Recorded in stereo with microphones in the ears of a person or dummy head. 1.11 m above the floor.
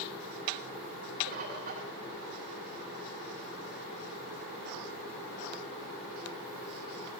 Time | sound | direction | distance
1.3 | a bird | 45° right (ahead or behind) | 1.2 m